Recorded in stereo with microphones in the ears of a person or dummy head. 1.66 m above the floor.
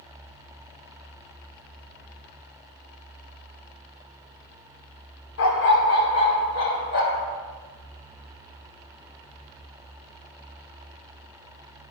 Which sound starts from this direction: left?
A dog barking, at 5.4 s.